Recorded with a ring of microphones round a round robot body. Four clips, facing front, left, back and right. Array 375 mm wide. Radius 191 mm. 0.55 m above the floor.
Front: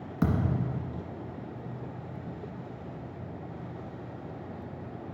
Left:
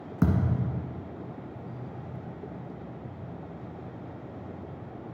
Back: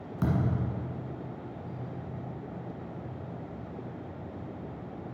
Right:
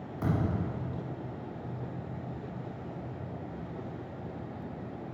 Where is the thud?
80° left, 1.6 m.